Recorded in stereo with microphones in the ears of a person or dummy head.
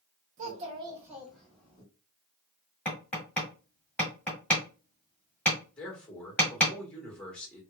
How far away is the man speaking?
About 1.3 m.